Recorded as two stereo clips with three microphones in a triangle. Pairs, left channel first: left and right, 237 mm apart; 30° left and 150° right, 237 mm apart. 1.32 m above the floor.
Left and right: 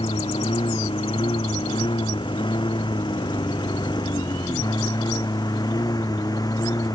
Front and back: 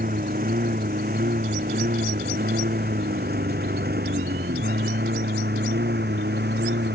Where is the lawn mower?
160° left; by 7.0 s 165° left.